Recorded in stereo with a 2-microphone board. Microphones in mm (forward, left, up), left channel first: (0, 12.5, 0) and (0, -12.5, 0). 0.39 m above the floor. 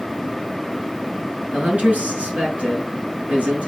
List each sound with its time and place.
1.5 s a man speaking: 80° right, 4.5 m